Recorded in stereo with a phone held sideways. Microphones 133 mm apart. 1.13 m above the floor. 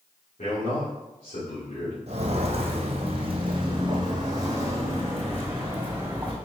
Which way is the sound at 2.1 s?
50° right (ahead or behind).